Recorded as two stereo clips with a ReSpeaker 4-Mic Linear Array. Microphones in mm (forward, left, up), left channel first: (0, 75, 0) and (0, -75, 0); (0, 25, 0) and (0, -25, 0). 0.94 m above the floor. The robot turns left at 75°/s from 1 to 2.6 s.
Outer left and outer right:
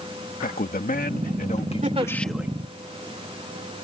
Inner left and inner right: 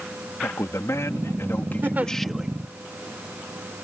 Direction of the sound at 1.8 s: 50° right (ahead or behind).